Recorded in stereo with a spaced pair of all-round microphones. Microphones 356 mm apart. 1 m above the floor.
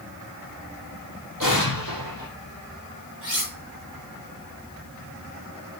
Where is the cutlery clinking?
55° left (ahead or behind), 7 m.